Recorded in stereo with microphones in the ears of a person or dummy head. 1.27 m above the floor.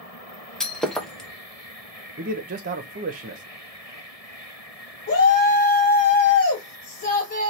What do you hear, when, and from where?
0.6 s breaking glass: 5° left (ahead or behind), 0.5 m
2.2 s a man speaking: 40° right (ahead or behind), 0.8 m
5.1 s a shout: 40° left (ahead or behind), 1.6 m